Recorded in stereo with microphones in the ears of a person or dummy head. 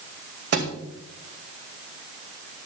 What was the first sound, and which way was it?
A thud, 55° right (ahead or behind).